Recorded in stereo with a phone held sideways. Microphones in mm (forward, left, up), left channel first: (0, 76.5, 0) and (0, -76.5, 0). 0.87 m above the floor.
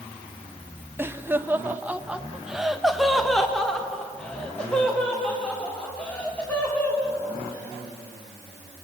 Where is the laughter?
15° right (ahead or behind), 1.0 m; by 8.9 s 10° left (ahead or behind), 4 m.